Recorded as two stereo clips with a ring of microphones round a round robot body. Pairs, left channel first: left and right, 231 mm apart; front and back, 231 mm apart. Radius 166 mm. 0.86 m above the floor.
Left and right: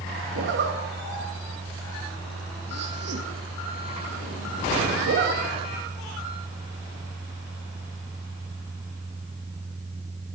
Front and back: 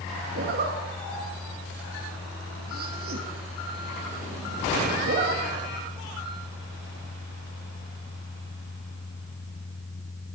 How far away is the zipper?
About 1.1 m.